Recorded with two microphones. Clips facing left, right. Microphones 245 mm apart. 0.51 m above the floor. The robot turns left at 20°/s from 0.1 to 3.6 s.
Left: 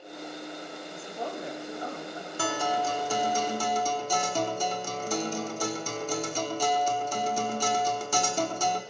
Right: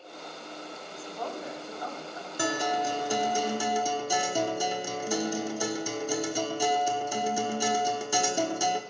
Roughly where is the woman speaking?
Centre.